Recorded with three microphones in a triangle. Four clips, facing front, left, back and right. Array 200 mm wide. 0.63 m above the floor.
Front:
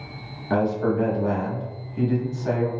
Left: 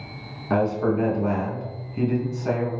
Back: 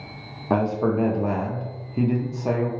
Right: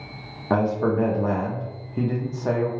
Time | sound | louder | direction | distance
0.5 | a man speaking | even, even | 140° right | 0.7 m